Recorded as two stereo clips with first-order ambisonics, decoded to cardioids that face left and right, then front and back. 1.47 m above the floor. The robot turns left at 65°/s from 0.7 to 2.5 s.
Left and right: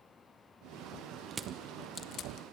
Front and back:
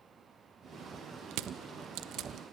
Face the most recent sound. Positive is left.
turn(degrees=120)